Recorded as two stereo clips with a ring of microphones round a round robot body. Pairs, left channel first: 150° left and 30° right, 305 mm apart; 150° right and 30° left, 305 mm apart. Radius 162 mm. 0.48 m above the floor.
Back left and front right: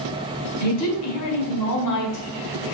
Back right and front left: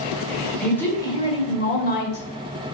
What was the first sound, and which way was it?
A woman speaking, 125° left.